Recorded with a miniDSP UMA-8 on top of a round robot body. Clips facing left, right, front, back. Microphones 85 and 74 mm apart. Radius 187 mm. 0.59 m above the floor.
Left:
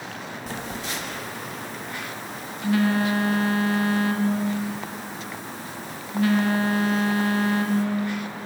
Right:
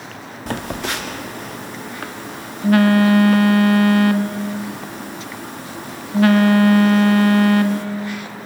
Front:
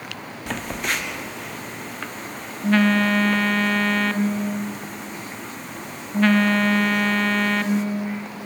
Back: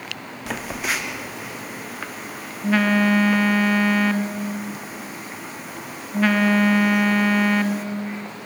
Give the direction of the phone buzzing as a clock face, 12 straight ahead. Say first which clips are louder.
Right 9 dB, even; 3 o'clock.